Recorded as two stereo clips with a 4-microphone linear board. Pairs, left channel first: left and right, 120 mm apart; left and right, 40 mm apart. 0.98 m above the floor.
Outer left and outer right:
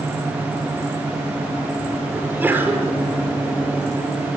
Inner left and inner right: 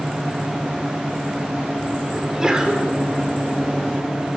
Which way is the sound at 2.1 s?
15° right (ahead or behind).